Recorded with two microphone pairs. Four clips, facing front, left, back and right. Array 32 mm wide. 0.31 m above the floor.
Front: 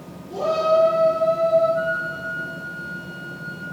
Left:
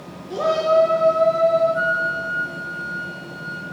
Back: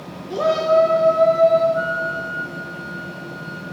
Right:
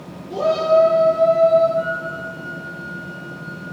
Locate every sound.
0.3 s a shout: 155° left, 5.5 m; by 1.6 s 160° left, 6 m
1.8 s a flute: 100° left, 1.7 m